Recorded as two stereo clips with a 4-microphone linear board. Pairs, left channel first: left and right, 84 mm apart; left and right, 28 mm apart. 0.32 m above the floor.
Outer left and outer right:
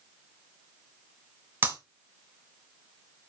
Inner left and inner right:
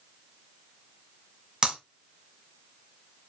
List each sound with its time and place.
1.6 s breaking glass: 25° right (ahead or behind), 2.5 m